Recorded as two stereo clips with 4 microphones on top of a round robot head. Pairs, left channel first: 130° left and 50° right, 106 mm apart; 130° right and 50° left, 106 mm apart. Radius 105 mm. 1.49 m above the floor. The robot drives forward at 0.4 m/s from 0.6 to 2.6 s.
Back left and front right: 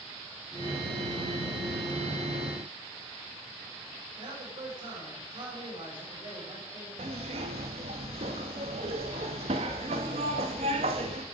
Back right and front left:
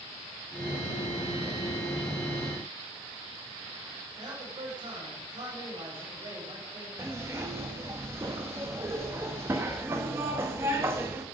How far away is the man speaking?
About 7 m.